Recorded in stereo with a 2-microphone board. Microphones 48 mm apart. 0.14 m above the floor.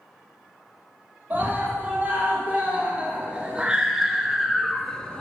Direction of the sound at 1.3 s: 30° right (ahead or behind).